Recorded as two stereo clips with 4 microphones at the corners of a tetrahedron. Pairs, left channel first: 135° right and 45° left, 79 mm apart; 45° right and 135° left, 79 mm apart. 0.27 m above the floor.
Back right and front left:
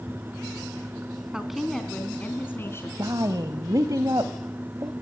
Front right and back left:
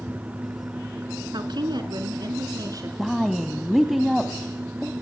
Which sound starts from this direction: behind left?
A woman speaking, at 1.3 s.